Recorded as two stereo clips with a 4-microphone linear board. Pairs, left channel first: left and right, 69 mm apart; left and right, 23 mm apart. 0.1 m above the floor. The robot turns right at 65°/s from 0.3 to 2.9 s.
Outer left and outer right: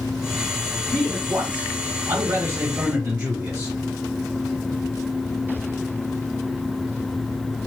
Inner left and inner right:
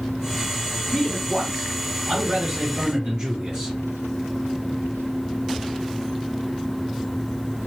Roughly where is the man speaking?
Behind.